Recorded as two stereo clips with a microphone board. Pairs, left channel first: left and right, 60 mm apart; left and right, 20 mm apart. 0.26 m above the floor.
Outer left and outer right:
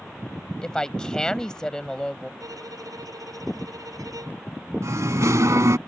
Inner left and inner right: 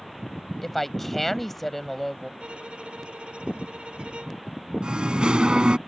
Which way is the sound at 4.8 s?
60° right (ahead or behind).